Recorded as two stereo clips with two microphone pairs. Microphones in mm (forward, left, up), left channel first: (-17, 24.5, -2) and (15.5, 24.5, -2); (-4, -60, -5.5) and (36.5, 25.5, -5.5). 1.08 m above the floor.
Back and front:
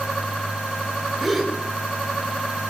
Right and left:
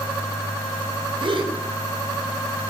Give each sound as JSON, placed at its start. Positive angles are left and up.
{"t": 1.2, "sound": "a gasp", "azimuth_deg": 90, "distance_m": 5.5}